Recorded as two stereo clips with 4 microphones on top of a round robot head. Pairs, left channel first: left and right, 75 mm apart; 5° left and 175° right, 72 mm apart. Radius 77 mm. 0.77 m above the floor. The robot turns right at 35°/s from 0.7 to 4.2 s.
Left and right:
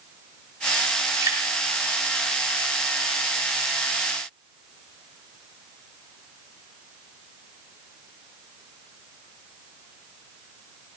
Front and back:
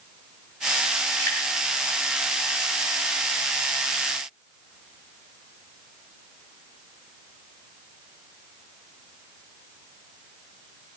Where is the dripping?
55° right, 2.5 m; by 1.4 s 50° right, 2.5 m.